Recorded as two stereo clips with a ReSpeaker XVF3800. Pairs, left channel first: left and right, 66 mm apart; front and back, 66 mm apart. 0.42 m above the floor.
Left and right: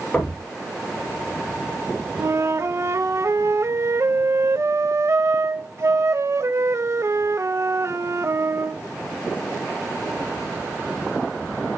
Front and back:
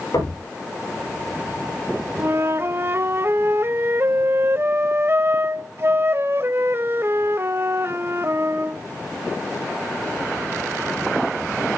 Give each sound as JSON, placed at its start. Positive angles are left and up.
{"t": 0.1, "sound": "knocking", "azimuth_deg": 20, "distance_m": 9.5}
{"t": 2.2, "sound": "a flute", "azimuth_deg": -130, "distance_m": 0.7}